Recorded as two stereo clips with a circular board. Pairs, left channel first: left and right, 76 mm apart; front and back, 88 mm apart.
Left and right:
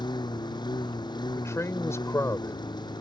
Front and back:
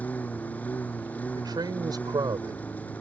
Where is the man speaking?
140° left.